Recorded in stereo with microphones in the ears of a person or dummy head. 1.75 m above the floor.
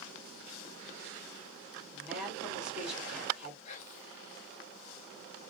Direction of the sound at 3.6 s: 45° left (ahead or behind).